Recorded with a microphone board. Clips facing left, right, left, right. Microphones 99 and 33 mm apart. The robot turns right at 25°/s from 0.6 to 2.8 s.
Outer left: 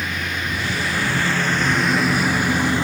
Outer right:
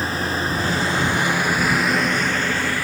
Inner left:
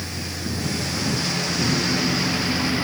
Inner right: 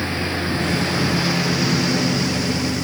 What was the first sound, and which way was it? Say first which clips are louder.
A lawn mower: outer right 4 dB, inner right 8 dB; 35° right.